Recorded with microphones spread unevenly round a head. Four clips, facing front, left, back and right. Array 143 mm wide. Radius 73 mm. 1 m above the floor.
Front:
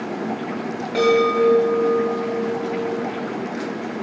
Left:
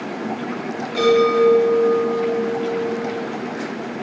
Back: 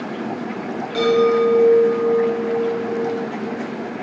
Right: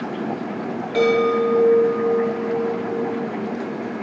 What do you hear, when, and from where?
0.9 s a chime: 35° right, 1.9 m